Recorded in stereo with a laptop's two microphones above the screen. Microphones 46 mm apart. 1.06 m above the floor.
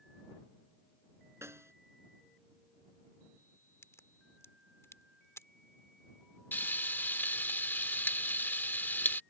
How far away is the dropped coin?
No dropped coin in this recording.